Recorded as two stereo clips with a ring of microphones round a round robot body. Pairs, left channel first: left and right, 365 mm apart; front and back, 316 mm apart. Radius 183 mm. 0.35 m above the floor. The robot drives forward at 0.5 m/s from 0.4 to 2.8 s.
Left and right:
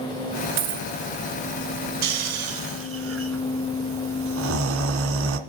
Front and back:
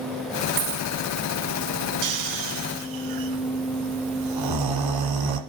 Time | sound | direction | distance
0.6 | a dropped coin | 140° right | 1.2 m
2.0 | snoring | 135° right | 1.6 m